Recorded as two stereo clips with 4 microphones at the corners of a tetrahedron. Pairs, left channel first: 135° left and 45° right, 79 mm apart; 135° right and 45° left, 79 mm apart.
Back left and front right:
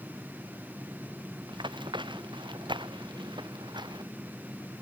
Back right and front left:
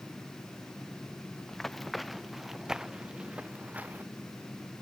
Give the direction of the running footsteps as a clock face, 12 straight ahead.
2 o'clock.